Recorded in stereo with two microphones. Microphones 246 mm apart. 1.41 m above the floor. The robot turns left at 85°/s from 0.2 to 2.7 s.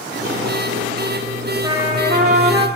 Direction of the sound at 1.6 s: 15° right (ahead or behind).